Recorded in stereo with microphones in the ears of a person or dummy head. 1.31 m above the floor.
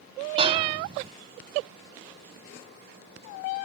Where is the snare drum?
30° right (ahead or behind).